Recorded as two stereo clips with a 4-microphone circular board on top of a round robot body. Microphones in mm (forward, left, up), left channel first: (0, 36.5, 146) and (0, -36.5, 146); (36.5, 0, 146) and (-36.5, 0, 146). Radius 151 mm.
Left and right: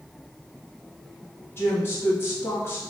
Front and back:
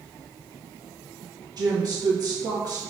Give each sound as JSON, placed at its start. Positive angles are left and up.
{"t": 1.6, "sound": "a woman speaking", "azimuth_deg": 150, "distance_m": 1.3}